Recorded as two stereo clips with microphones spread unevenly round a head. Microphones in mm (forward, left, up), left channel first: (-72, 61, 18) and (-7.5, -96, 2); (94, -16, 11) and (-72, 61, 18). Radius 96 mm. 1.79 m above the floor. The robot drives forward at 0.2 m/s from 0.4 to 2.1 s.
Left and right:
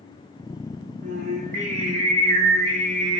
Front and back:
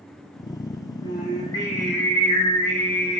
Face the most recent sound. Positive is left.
turn(degrees=-105)